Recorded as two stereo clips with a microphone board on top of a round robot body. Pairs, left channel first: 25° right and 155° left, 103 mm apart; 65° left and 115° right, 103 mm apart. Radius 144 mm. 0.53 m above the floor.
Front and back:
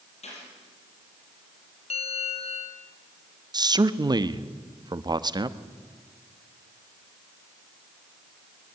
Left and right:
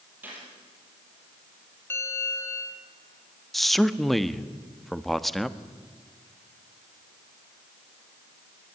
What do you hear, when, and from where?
0.2 s a gunshot: 40° right, 8 m
1.9 s a bell: straight ahead, 2 m
3.5 s a man speaking: 155° left, 1.3 m